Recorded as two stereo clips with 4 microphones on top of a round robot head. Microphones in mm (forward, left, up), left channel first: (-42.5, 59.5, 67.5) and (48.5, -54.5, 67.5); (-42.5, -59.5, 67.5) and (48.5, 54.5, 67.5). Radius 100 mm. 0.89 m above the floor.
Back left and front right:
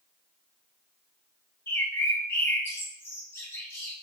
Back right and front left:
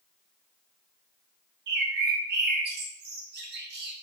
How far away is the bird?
About 0.9 m.